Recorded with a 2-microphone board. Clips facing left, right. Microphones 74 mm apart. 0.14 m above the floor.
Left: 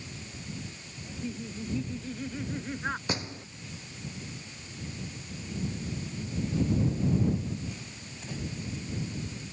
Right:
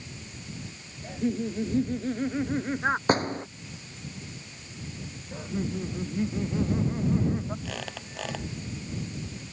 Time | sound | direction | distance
1.0 | laughter | 55° right (ahead or behind) | ?
3.1 | a door slam | 45° right (ahead or behind) | ?
5.3 | laughter | 70° right (ahead or behind) | ?
7.7 | a squeak | 85° right | ?